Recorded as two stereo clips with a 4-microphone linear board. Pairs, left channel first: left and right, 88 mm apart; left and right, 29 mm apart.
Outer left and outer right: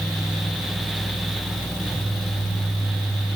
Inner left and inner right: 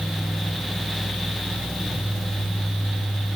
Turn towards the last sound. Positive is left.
No sound to turn to.